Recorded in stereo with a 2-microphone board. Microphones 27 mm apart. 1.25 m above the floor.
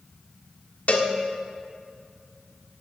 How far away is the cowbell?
About 1.5 m.